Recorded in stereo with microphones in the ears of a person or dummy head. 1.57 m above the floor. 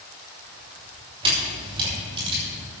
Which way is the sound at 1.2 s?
30° right (ahead or behind).